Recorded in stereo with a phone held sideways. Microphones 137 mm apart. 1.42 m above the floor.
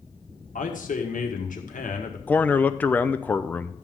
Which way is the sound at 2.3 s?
10° left (ahead or behind).